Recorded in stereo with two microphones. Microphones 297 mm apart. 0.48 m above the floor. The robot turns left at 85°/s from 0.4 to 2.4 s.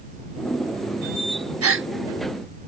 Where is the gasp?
50° right (ahead or behind); by 1.9 s 35° right (ahead or behind).